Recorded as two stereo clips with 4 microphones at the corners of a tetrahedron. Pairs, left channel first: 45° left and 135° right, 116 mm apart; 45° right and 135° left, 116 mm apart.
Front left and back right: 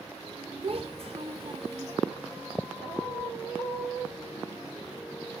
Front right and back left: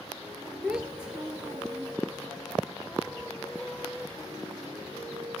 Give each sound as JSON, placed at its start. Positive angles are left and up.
{"t": 0.6, "sound": "a child speaking", "azimuth_deg": -145, "distance_m": 1.1}